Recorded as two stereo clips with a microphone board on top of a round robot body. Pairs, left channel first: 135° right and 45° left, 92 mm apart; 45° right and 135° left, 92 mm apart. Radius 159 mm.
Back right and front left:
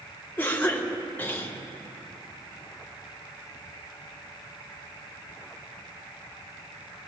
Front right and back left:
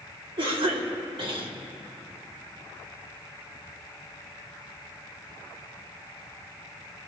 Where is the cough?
155° left, 2.5 m.